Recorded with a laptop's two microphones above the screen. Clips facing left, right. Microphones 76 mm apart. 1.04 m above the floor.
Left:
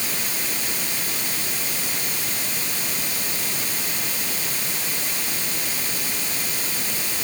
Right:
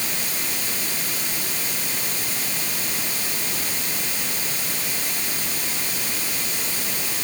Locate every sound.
Only background noise.